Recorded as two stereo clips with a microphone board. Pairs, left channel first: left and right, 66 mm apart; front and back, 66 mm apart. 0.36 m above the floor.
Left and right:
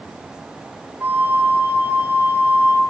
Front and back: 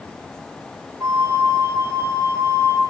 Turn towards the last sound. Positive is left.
turn(degrees=-140)